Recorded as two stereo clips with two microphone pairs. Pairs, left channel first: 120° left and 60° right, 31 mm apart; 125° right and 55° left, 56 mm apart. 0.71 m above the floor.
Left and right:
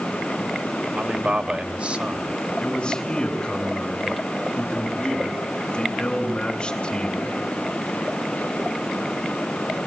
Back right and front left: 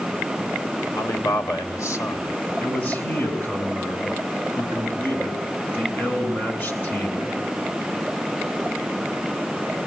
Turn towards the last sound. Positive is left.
turn(degrees=175)